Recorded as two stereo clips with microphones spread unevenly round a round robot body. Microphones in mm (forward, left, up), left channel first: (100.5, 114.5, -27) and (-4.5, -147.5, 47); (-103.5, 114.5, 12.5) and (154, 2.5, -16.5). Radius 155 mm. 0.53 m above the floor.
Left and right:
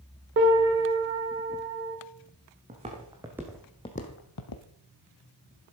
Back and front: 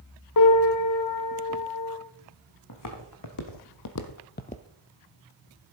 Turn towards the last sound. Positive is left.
turn(degrees=90)